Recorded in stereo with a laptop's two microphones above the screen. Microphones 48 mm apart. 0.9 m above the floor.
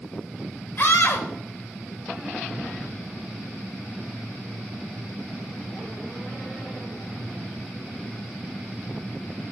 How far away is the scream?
About 4.5 m.